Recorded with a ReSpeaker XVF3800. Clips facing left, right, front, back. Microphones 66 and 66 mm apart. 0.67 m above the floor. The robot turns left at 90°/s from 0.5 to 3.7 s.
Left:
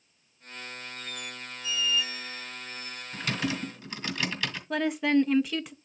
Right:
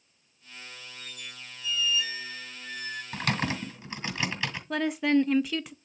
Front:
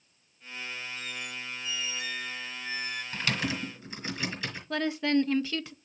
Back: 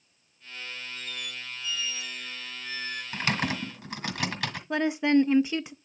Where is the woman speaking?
Straight behind, 0.5 m.